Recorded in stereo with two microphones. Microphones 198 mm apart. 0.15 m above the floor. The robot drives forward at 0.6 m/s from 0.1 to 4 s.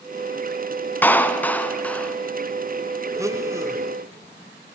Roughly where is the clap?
Centre.